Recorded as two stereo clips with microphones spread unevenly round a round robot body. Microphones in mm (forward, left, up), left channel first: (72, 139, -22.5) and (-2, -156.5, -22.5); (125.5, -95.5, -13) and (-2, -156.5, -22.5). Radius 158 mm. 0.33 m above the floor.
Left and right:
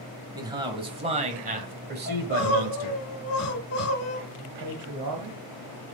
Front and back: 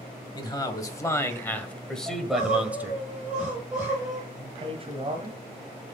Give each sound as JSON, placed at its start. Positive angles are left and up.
{"t": 0.3, "sound": "a man speaking", "azimuth_deg": -30, "distance_m": 1.9}
{"t": 2.1, "sound": "crying", "azimuth_deg": 120, "distance_m": 1.7}
{"t": 4.3, "sound": "a man speaking", "azimuth_deg": -120, "distance_m": 1.5}